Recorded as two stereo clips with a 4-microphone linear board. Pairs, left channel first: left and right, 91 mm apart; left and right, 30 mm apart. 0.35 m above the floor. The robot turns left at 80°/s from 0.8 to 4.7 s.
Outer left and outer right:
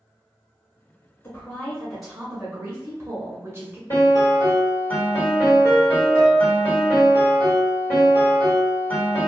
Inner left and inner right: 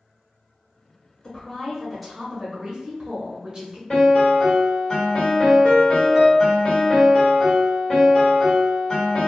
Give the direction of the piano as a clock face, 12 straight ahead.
9 o'clock.